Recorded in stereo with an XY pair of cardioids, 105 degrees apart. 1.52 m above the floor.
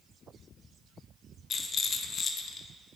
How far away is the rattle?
About 1.5 m.